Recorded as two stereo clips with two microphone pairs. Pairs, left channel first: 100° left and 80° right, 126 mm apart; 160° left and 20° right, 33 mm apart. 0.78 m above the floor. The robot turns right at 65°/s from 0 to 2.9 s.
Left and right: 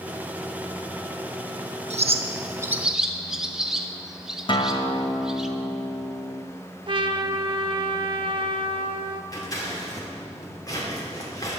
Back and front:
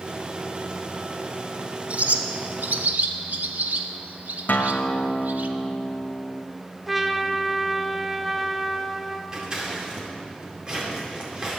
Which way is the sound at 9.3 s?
45° left.